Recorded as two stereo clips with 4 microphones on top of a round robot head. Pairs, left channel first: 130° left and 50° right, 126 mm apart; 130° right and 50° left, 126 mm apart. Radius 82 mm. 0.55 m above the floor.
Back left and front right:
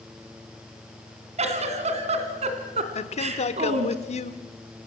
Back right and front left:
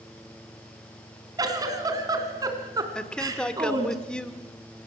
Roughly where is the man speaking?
Behind left.